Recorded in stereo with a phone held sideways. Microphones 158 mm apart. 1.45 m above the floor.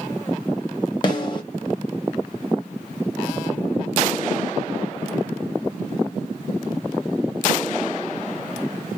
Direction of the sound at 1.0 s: 30° left (ahead or behind).